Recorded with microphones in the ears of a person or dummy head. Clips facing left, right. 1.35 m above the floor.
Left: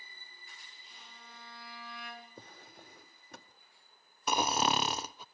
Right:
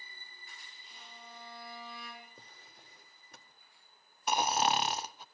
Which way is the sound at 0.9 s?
15° right (ahead or behind).